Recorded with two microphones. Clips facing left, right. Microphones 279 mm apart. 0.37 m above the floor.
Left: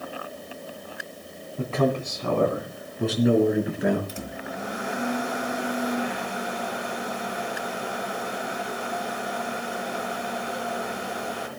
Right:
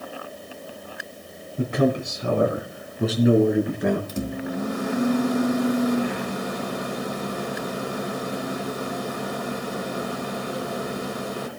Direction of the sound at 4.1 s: 45° right (ahead or behind).